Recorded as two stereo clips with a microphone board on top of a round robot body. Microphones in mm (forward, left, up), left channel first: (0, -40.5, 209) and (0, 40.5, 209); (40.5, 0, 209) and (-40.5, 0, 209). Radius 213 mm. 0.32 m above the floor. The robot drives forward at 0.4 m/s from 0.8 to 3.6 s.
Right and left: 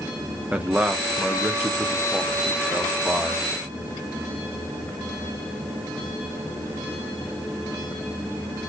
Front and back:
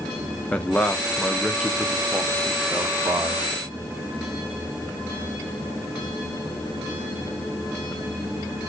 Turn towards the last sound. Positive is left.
turn(degrees=160)